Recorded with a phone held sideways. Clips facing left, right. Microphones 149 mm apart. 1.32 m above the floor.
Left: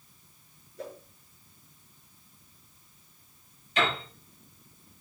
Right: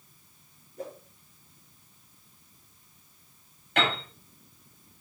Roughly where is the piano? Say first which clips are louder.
Right 1 dB; right.